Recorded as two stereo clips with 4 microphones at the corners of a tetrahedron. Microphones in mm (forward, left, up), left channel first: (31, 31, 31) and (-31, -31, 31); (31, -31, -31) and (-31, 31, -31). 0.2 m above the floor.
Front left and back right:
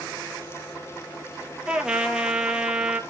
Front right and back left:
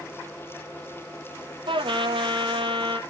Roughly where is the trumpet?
Behind left.